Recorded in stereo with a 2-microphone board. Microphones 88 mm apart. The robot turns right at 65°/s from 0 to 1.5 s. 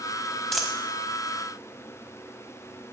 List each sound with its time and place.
0.5 s a dropped coin: 5° left (ahead or behind), 1.3 m; by 0.7 s 10° right (ahead or behind), 1.3 m